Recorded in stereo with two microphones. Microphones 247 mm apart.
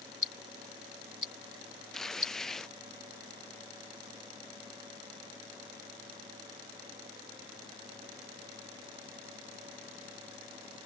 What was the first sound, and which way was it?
Ticking, 60° right (ahead or behind).